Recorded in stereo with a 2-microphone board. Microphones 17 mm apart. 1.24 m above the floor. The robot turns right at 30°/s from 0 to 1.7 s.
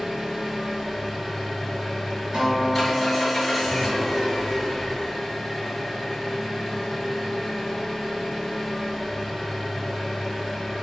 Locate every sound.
0.0 s an engine running: 30° right, 1.8 m; by 10.8 s 20° left, 1.8 m
2.3 s a guitar: 75° right (ahead or behind), 1.4 m